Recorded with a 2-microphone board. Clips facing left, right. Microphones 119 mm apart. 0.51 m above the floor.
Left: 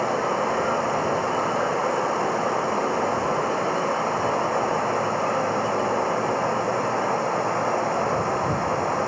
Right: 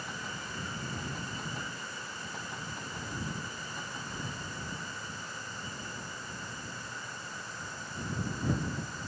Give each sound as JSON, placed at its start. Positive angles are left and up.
{"t": 0.0, "sound": "running water", "side_deg": 70}